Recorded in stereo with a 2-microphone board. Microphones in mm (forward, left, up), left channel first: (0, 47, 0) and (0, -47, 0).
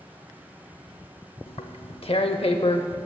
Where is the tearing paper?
70° left (ahead or behind), 0.7 m.